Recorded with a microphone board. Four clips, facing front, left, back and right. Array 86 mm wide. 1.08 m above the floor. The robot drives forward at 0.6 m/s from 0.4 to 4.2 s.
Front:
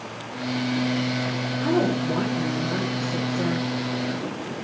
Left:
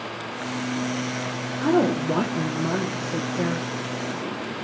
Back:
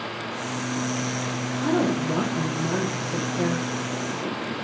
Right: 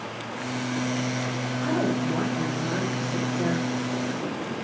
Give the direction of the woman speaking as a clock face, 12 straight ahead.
9 o'clock.